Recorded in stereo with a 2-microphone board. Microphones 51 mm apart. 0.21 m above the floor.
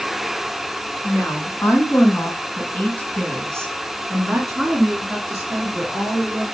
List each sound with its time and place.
1.0 s a woman speaking: 55° left (ahead or behind), 2.5 m; by 6.4 s 20° right (ahead or behind), 4.5 m